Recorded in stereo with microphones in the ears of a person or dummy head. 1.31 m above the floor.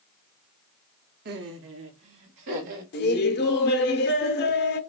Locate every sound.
1.2 s laughter: 45° right (ahead or behind), 0.6 m; by 2.8 s 65° right (ahead or behind), 1.8 m
2.9 s laughter: 55° left (ahead or behind), 0.9 m